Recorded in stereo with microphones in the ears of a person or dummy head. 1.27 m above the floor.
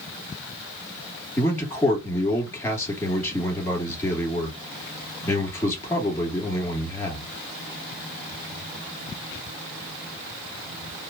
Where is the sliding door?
No sliding door in this recording.